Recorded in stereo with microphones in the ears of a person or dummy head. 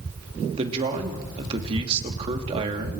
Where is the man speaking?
35° right (ahead or behind), 2.5 m.